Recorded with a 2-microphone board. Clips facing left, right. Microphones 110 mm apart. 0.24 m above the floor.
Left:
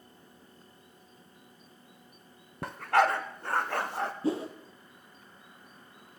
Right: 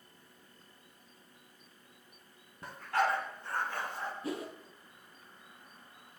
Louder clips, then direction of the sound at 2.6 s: Left 6 dB; 80° left.